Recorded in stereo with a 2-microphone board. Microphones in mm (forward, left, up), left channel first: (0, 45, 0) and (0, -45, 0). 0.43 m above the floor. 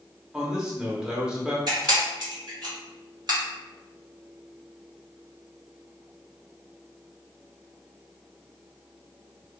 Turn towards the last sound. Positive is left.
turn(degrees=-55)  # may be behind; listen again after turning